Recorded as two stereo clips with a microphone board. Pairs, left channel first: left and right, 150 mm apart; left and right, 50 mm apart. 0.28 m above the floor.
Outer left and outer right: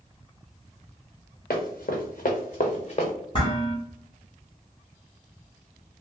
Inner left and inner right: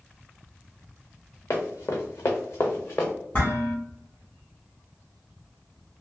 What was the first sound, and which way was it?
Running footsteps, 80° left.